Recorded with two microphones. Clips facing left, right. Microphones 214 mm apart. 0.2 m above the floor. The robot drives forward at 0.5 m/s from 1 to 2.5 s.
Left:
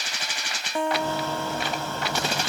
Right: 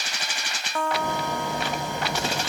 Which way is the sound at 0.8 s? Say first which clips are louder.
Left 2 dB; 20° left (ahead or behind).